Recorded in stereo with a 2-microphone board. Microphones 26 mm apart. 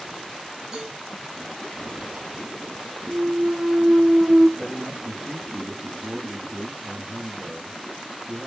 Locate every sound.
0.7 s a cowbell: 20° right (ahead or behind), 5.5 m
3.1 s a clunk: 65° right (ahead or behind), 1.3 m
4.6 s a man speaking: 30° right (ahead or behind), 4.5 m